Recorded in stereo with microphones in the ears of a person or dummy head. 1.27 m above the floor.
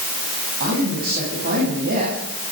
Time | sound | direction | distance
0.6 | a man speaking | 50° right (ahead or behind) | 9 m